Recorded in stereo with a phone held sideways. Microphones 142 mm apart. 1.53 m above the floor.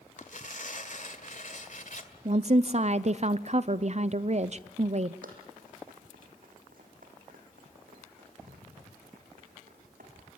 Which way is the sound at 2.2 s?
50° right (ahead or behind).